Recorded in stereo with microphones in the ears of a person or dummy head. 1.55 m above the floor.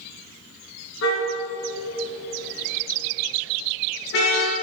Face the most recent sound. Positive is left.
turn(degrees=70)  # may be behind; listen again after turning